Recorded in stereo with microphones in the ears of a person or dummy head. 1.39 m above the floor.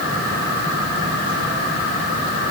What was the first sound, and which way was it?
Only background noise.